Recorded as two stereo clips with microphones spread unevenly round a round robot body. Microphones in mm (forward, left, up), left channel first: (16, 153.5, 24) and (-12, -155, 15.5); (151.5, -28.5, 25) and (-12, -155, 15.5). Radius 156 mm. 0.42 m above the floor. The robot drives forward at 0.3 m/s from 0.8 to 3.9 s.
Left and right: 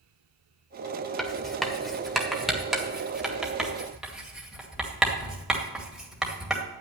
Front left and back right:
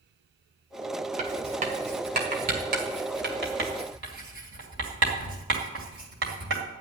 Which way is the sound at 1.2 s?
175° left.